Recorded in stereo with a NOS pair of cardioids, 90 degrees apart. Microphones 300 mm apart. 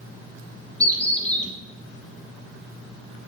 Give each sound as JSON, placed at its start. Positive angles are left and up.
{"t": 0.8, "sound": "a bird", "azimuth_deg": 5, "distance_m": 1.2}